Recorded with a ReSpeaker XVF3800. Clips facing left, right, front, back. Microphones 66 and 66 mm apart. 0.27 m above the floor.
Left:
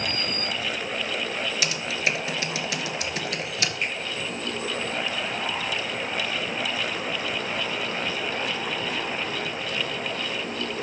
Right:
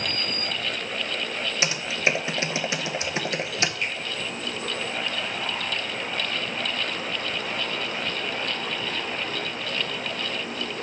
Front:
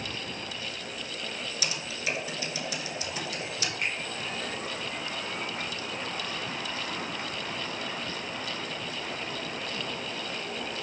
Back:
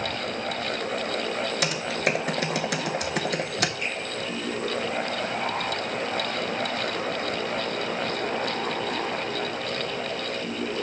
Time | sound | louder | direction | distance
1.6 | typing on a keyboard | right 5 dB, back 6 dB | 150° right | 0.6 m
3.8 | a finger snap | even, back 1 dB | 25° left | 2.5 m